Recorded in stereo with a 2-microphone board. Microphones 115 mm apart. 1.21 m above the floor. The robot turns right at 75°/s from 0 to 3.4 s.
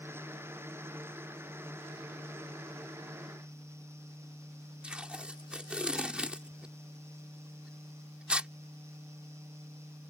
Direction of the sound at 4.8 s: 10° right (ahead or behind).